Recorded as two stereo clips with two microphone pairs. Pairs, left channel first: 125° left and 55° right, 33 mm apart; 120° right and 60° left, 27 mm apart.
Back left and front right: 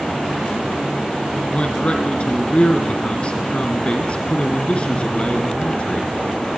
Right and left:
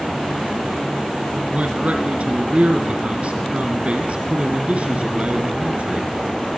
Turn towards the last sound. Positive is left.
turn(degrees=85)